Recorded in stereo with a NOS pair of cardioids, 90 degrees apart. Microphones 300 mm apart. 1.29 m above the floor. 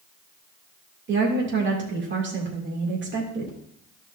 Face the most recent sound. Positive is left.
turn(degrees=-40)